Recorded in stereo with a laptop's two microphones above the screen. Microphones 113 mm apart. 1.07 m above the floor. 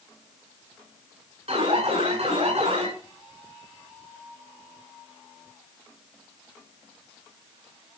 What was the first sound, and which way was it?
An alarm, 65° right (ahead or behind).